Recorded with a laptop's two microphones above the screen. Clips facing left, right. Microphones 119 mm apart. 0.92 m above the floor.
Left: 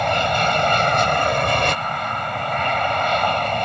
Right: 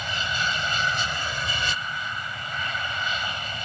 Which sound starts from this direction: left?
An aircraft, at 0.0 s.